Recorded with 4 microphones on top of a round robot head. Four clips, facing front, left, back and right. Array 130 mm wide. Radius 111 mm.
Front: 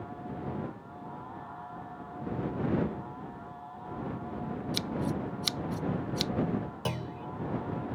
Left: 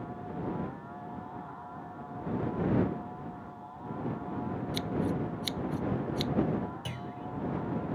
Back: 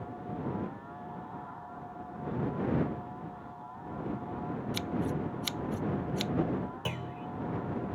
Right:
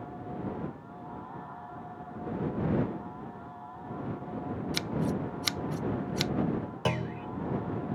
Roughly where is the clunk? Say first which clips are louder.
Right 8 dB, front 2 dB; right.